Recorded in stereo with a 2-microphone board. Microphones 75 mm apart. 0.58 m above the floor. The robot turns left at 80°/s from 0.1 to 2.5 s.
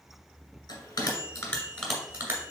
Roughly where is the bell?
Left.